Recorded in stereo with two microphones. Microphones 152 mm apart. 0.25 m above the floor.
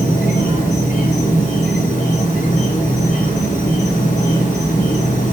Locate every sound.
0.0 s an insect: 55° left (ahead or behind), 3.5 m